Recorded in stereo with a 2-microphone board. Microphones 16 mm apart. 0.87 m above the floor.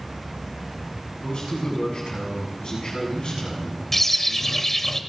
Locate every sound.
1.2 s a man speaking: 70° left (ahead or behind), 7.5 m
3.9 s a bird: 20° left (ahead or behind), 0.8 m